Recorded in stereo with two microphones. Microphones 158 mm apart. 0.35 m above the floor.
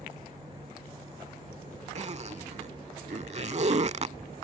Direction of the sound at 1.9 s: 45° right (ahead or behind).